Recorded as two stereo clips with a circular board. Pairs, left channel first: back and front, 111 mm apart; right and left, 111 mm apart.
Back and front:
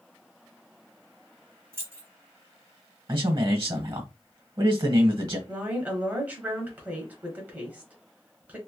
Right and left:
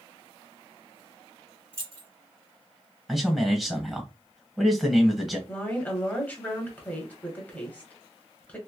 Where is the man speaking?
5° left, 1.2 m.